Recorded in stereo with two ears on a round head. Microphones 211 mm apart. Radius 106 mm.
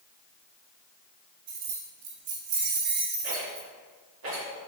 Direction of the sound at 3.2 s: 60° right (ahead or behind).